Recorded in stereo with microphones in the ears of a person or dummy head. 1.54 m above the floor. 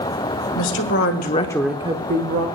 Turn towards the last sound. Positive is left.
turn(degrees=-50)  # may be behind; listen again after turning